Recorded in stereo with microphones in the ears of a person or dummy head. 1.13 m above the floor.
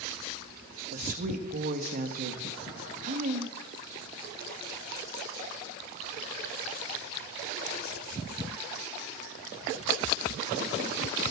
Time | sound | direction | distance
0.9 | a woman speaking | 45° right (ahead or behind) | 1.7 m